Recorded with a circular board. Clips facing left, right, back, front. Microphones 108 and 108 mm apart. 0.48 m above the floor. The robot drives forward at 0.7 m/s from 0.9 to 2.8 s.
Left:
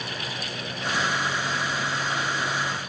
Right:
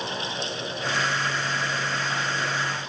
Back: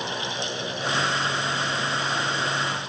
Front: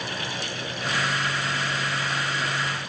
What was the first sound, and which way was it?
Only background noise.